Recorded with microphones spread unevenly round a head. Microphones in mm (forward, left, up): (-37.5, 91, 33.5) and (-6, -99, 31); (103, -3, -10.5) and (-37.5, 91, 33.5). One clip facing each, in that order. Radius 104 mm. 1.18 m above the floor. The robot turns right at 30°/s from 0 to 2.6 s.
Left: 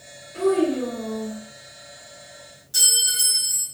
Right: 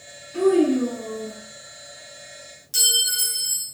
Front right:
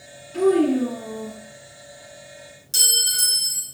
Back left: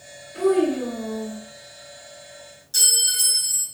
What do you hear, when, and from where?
0.3 s a child speaking: 60° right, 1.3 m; by 1.4 s 25° right, 1.3 m
2.7 s a clink: 20° right, 1.2 m